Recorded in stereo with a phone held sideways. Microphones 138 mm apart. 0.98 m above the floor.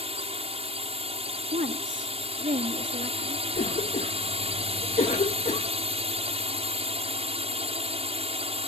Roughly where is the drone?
Right.